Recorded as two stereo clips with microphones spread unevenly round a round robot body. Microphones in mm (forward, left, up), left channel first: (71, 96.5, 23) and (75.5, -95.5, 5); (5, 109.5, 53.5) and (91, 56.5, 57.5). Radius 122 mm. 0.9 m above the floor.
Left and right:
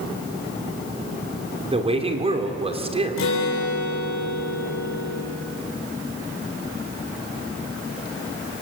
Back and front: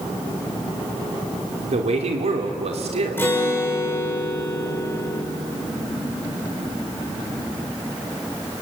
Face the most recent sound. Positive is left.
turn(degrees=80)